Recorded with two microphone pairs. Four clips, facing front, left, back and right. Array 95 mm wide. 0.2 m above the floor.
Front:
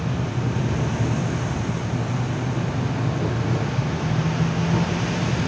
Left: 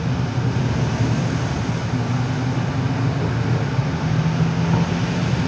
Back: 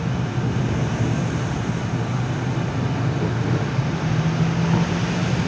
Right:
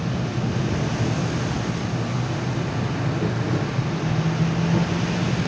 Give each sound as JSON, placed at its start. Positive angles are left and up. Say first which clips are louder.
{"t": 0.0, "sound": "an insect", "louder": "left 2 dB, back 1 dB", "azimuth_deg": 105, "distance_m": 2.0}